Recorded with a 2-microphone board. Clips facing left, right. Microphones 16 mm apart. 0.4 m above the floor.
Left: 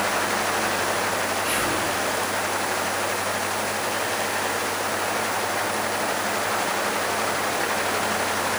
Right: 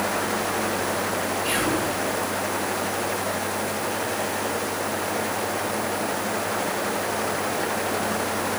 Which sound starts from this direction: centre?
Whispering, at 1.4 s.